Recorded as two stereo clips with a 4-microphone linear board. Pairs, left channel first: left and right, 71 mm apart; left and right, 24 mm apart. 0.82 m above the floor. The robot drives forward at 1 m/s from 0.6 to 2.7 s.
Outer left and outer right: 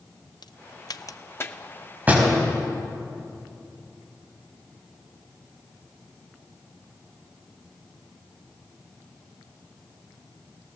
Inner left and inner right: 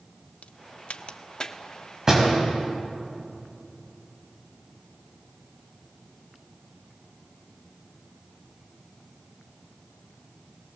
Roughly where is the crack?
Left.